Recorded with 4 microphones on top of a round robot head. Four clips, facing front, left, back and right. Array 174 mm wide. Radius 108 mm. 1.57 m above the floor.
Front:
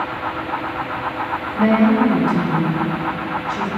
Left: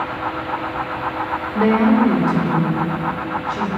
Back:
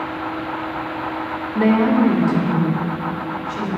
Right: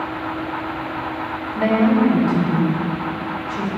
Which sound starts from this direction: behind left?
A woman speaking, at 1.6 s.